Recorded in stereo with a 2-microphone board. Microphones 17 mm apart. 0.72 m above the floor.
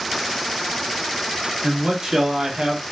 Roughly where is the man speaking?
Right.